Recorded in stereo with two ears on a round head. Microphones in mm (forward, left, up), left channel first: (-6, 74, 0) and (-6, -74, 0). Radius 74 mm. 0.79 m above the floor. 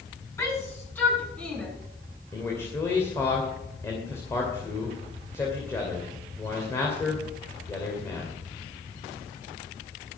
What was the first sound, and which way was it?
A shout, 20° left (ahead or behind).